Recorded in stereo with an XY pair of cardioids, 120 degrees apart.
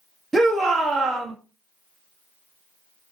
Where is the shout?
10° right, 1.0 m.